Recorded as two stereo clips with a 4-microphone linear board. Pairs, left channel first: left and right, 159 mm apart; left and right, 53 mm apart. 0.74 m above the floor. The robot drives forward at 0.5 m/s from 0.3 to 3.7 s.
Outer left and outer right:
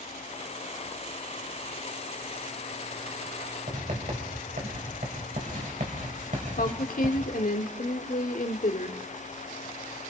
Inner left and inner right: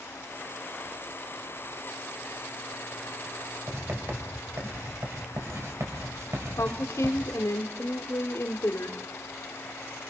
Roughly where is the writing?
Right.